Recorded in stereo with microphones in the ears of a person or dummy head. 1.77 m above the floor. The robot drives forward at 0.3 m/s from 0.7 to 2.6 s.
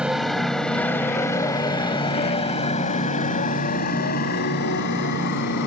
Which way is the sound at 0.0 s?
5° right (ahead or behind).